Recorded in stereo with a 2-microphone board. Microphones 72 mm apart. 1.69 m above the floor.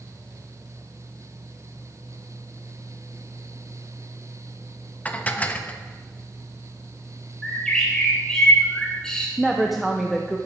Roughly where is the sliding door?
No sliding door in this recording.